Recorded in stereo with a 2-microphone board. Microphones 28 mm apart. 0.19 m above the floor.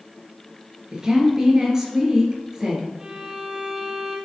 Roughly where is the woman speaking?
Centre.